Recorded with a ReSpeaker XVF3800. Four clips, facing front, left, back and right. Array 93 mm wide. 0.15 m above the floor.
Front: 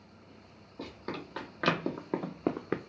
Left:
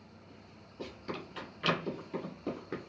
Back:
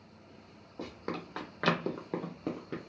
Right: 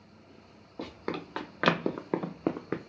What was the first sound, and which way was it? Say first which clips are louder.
Running footsteps: right 5 dB, back 1 dB; 105° right.